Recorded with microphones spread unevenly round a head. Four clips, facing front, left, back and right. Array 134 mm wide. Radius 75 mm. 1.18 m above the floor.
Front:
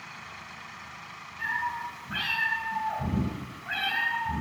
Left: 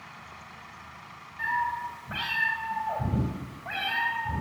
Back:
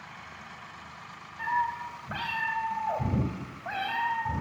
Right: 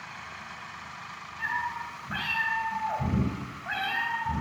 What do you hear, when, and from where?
1.4 s a cat meowing: 150° left, 3 m